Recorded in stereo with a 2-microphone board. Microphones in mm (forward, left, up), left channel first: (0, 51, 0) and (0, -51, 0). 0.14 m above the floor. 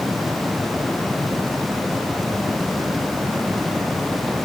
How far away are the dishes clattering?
I don't hear dishes clattering.